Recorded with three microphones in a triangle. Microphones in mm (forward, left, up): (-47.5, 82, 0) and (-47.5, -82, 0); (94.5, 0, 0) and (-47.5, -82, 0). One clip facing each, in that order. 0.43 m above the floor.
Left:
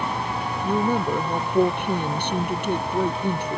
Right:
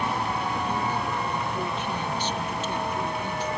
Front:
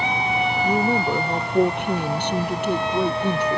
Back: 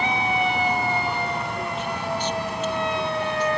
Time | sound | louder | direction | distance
0.6 | a woman speaking | left 6 dB, front 4 dB | 60° left | ?